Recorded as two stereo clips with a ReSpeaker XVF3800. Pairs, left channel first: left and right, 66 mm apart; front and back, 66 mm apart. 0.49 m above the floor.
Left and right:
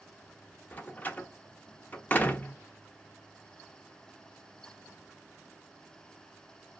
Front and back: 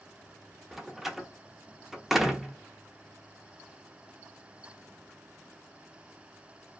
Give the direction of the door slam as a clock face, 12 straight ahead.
9 o'clock.